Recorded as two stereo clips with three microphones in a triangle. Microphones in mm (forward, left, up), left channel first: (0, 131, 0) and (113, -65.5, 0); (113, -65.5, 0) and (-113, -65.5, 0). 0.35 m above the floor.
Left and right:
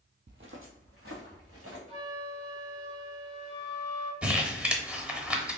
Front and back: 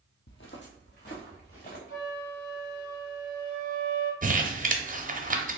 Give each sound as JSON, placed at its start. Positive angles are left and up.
{"t": 0.3, "sound": "footsteps", "azimuth_deg": -20, "distance_m": 0.6}
{"t": 1.9, "sound": "a flute", "azimuth_deg": -10, "distance_m": 1.5}
{"t": 4.2, "sound": "crumpling", "azimuth_deg": -140, "distance_m": 0.6}